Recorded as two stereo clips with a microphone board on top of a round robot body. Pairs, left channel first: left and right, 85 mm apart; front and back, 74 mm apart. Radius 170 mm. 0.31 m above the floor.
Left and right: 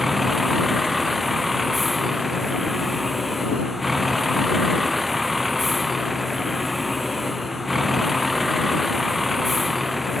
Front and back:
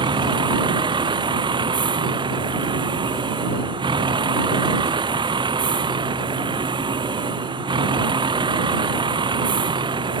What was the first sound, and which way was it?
A vehicle, straight behind.